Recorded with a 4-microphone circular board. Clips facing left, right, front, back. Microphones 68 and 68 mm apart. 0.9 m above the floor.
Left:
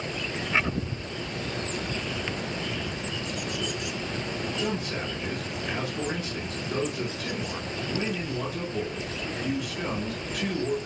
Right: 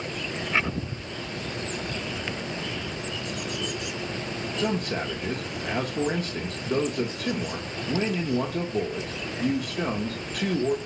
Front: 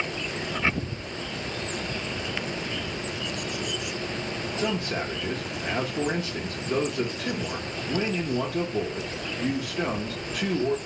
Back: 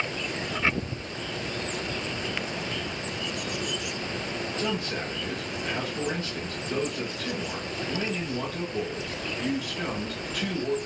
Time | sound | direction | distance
4.6 | a man speaking | 65° right | 0.6 m